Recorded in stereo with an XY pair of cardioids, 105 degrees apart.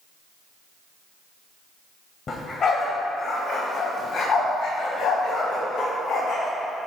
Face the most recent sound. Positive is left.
turn(degrees=75)